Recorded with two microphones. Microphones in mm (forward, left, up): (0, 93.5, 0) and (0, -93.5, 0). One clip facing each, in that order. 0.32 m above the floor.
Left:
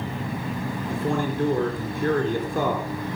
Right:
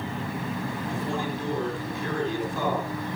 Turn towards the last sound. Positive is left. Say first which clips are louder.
# left 6 dB
turn(degrees=55)  # may be behind; listen again after turning